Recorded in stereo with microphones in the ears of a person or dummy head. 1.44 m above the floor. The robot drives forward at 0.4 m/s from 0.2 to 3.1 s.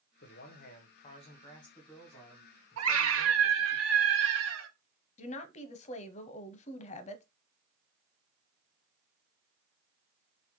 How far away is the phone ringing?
I don't hear a phone ringing.